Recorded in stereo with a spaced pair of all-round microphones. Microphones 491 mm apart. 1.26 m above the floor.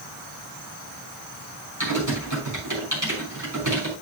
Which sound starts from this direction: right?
Typing on a keyboard, at 1.8 s.